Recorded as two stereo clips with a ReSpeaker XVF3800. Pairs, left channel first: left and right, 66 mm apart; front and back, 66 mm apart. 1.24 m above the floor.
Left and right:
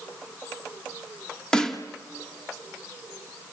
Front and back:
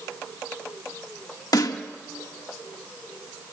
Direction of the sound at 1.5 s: 10° left.